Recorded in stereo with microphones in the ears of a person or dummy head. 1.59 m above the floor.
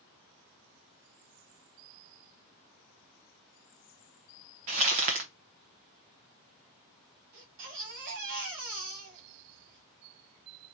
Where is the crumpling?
25° right (ahead or behind), 0.6 m.